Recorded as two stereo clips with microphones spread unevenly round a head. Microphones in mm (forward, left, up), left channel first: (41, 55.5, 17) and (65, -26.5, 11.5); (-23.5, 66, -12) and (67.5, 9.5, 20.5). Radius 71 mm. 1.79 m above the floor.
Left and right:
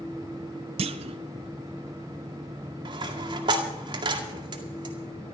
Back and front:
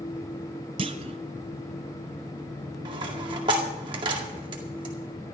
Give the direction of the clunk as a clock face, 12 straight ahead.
3 o'clock.